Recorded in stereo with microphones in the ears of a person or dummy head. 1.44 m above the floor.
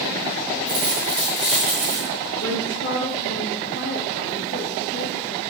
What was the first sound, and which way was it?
A dropped coin, 20° right (ahead or behind).